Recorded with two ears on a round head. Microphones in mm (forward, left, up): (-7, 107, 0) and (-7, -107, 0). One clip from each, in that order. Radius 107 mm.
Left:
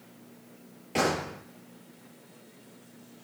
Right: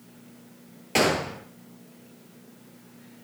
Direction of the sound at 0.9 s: 35° right (ahead or behind).